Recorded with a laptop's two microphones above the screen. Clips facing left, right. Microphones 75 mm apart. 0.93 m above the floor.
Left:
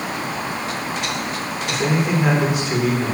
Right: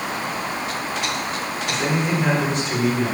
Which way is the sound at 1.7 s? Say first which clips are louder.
Left 2 dB; 5° left (ahead or behind).